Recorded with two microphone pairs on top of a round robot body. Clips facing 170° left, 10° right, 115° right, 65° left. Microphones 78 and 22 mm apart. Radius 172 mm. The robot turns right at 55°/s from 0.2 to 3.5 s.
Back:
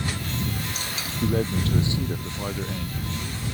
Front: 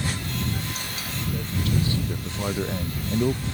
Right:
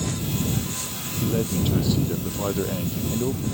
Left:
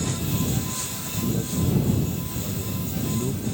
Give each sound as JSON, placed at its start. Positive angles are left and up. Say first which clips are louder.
{"t": 1.2, "sound": "a man speaking", "louder": "back 6 dB, right 2 dB", "azimuth_deg": -165}